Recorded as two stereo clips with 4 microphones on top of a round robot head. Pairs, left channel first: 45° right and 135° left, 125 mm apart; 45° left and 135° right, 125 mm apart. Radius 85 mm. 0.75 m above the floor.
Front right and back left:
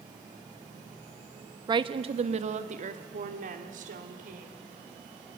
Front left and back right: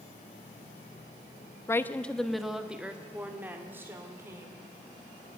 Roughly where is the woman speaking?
Left.